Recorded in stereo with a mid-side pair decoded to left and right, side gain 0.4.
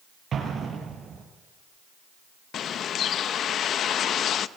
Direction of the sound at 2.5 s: 70° left.